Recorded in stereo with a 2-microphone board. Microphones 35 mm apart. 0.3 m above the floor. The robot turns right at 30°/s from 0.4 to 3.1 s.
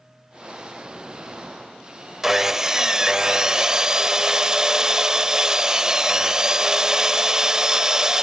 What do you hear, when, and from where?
2.2 s sawing: 15° right (ahead or behind), 0.5 m; by 8.2 s 20° right (ahead or behind), 0.5 m